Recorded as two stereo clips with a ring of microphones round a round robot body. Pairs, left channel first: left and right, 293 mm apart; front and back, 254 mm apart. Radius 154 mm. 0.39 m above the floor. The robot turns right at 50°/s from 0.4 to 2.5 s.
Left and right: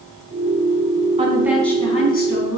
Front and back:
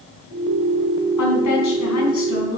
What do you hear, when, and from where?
1.2 s a woman speaking: 20° right, 4 m; by 2.6 s 45° left, 4 m